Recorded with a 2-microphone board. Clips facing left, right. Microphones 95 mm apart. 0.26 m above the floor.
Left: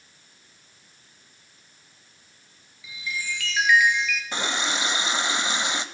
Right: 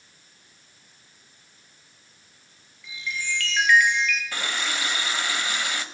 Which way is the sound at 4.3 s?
20° left (ahead or behind).